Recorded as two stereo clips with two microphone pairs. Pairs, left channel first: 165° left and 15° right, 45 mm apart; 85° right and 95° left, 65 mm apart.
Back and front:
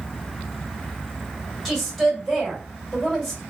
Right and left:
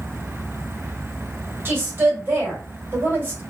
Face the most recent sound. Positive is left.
turn(degrees=70)